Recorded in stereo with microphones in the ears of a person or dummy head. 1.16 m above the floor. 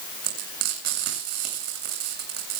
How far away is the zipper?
I don't hear a zipper.